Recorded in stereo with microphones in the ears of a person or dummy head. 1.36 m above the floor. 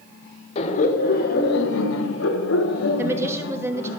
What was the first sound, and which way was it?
Laughter, 40° left (ahead or behind).